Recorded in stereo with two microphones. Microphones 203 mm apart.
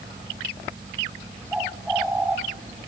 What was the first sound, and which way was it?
A bird, 5° right (ahead or behind).